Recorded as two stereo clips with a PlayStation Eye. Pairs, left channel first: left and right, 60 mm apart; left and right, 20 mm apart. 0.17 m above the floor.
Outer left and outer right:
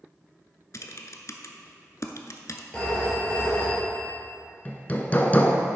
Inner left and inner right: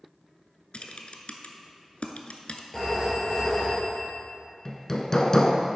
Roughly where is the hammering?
Left.